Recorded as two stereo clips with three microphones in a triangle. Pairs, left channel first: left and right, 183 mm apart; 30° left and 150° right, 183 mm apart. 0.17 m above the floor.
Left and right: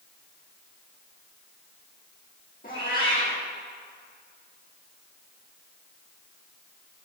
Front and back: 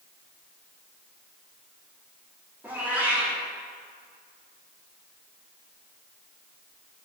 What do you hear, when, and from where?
2.6 s a cat meowing: 130° left, 3.5 m